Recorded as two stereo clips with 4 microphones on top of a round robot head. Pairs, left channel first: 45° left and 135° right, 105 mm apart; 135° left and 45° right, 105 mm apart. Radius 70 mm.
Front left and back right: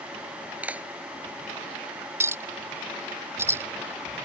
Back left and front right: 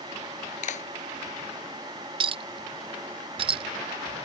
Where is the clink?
70° right.